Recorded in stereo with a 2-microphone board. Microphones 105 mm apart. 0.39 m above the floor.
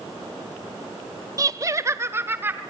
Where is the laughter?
35° right (ahead or behind), 0.9 m; by 2.6 s 20° right (ahead or behind), 1.7 m.